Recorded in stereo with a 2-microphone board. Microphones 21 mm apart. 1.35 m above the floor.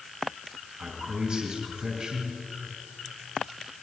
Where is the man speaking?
65° right (ahead or behind), 3 m.